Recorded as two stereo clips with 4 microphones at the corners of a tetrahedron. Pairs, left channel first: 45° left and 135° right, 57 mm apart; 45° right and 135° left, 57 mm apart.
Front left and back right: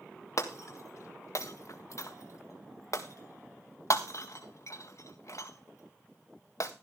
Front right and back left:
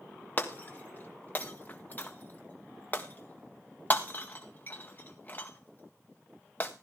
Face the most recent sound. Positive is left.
turn(degrees=15)